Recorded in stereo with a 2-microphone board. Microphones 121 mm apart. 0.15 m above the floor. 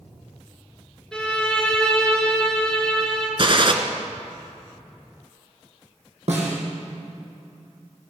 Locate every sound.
1.1 s a violin: 5° left (ahead or behind), 2.5 m
3.4 s a gunshot: 50° right (ahead or behind), 1.2 m
6.3 s a snare drum: 70° right (ahead or behind), 3.5 m